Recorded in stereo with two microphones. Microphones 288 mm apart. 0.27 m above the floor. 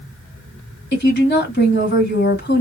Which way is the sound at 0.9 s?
35° left (ahead or behind).